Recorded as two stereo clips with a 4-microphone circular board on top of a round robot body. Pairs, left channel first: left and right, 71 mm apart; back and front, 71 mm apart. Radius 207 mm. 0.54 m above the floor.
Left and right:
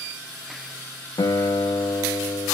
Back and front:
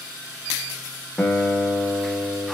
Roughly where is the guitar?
Left.